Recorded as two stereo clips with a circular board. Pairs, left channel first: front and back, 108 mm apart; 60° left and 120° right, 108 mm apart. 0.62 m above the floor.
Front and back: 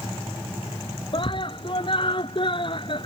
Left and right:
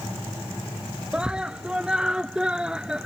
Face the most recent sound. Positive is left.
turn(degrees=-40)